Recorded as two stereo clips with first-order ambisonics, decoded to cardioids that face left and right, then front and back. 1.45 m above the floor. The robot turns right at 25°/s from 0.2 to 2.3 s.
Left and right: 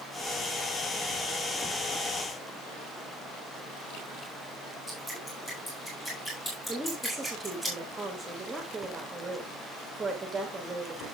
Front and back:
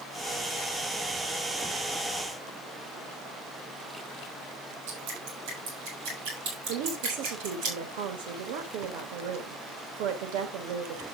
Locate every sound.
4.9 s dripping: 165° left, 7 m
6.7 s a woman speaking: 170° right, 2.5 m